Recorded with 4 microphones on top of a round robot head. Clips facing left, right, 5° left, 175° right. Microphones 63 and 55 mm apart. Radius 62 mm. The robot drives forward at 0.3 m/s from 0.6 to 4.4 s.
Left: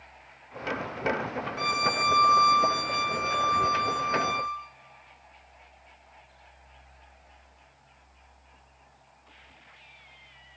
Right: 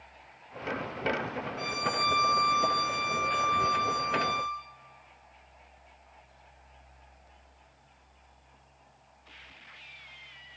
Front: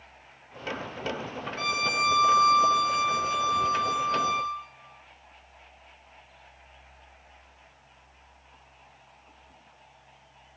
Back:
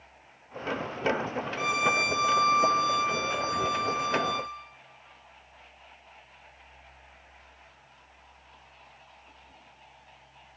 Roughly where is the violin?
Left.